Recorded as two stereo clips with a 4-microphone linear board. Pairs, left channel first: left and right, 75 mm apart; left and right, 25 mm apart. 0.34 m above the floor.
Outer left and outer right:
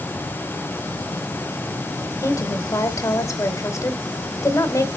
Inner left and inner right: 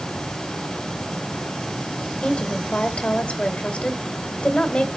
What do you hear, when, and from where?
2.2 s a woman speaking: 45° left (ahead or behind), 1.9 m